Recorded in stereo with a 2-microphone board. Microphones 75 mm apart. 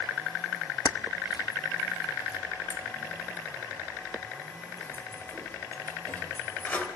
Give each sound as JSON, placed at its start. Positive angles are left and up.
{"t": 0.8, "sound": "keys jangling", "side_deg": 55, "distance_m": 0.8}